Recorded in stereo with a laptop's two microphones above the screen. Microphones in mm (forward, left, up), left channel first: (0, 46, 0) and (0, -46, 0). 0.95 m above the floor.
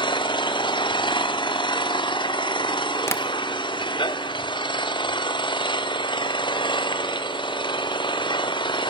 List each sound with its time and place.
0.0 s an engine running: 65° left (ahead or behind), 0.9 m
3.1 s tapping: 30° left (ahead or behind), 1.1 m